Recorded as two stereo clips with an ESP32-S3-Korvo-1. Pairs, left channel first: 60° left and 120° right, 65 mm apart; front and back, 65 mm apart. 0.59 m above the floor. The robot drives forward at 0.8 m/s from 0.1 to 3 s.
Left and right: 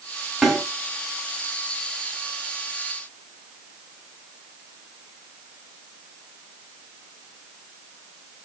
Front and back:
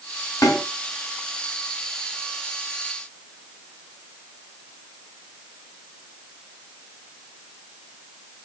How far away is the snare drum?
About 5.5 m.